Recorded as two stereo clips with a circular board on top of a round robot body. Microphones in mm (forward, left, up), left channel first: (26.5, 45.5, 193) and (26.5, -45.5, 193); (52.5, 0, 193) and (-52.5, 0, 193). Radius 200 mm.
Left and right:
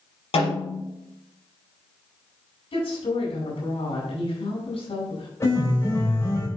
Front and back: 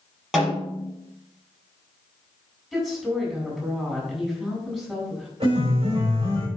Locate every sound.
0.3 s a snare drum: 95° left, 4.5 m
2.7 s a woman speaking: 95° left, 4.5 m
5.4 s a piano: 150° left, 4.5 m